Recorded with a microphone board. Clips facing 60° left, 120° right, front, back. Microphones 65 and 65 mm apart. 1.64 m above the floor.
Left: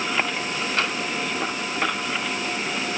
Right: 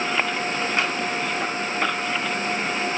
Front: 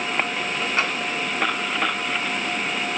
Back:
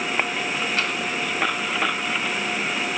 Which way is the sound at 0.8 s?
60° right.